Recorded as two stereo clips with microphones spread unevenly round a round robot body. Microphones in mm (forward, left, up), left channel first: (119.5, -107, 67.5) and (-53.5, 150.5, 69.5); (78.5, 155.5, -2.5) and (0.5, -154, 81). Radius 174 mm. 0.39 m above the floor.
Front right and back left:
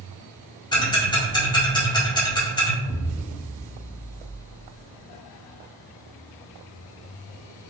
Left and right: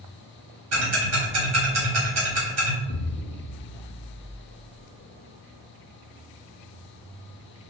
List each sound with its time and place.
0.7 s ticking: 120° right, 1.6 m
2.9 s an explosion: 25° left, 0.5 m